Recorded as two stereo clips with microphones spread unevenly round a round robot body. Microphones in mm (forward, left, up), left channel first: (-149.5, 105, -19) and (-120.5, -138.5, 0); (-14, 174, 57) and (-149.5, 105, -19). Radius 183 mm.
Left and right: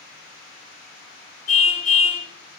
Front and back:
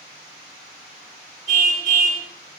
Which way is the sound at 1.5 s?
110° left.